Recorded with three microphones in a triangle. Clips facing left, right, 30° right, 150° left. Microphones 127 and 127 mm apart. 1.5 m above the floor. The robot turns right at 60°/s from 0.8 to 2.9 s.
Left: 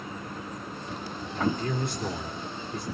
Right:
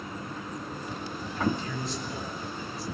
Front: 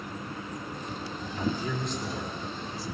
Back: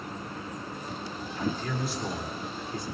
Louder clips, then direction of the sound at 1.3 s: Left 2 dB, front 1 dB; 30° left.